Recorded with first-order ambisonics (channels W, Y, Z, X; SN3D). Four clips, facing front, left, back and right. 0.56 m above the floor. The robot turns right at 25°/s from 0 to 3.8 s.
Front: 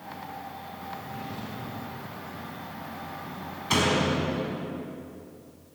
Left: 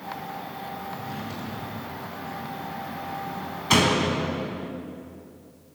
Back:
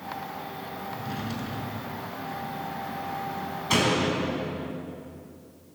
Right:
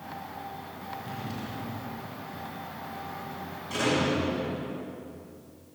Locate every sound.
0.9 s a drawer: 160° left, 5 m; by 2.1 s 170° right, 5 m
3.7 s a door slam: 90° left, 4 m; by 4.7 s 95° left, 4 m